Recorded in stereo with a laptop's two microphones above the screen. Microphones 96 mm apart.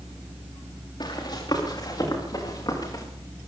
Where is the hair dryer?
No hair dryer in this recording.